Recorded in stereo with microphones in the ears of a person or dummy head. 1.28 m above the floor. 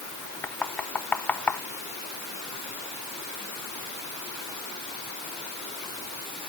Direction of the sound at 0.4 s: 10° left (ahead or behind).